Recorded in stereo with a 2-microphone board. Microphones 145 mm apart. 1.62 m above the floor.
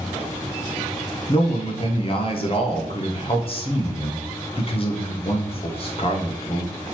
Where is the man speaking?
40° left (ahead or behind), 0.9 m.